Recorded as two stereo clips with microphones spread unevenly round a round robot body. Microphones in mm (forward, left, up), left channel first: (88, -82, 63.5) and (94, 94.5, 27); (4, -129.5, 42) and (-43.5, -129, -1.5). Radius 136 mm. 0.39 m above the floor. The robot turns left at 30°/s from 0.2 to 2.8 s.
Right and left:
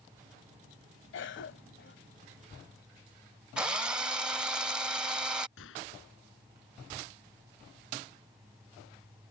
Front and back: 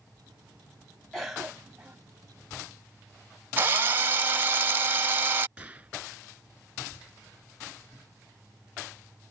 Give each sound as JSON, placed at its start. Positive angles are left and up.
{"t": 1.1, "sound": "a cough", "azimuth_deg": -110}
{"t": 3.6, "sound": "a drill", "azimuth_deg": 170}
{"t": 5.6, "sound": "a gunshot", "azimuth_deg": -120}